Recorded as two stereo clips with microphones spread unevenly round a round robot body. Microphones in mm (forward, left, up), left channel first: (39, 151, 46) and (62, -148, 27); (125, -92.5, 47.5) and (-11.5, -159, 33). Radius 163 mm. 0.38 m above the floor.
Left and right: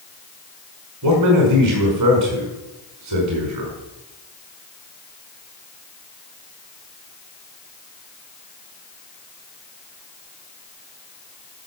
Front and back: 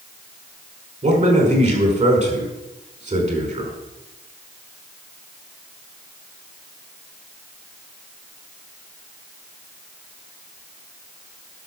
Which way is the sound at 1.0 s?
115° right.